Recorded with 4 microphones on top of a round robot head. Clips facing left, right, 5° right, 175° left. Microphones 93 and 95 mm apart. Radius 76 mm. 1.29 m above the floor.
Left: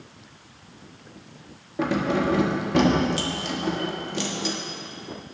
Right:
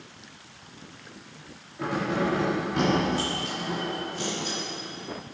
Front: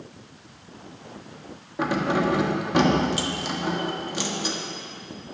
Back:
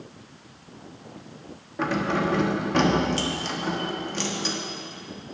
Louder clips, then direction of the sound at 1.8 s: Left 4 dB, front 2 dB; 70° left.